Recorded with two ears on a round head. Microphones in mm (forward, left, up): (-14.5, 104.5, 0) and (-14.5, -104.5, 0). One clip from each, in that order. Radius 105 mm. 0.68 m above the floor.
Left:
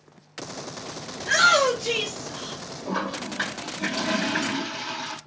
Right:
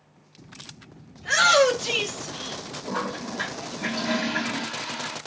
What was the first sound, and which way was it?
A shout, 25° right (ahead or behind).